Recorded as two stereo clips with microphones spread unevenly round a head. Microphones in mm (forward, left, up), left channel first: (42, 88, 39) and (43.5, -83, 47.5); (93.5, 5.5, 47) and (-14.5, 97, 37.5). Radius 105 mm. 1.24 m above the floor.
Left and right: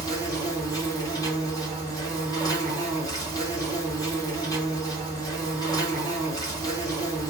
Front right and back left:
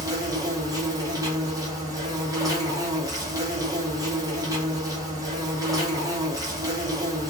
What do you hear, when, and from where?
0.0 s an insect: 125° left, 1.0 m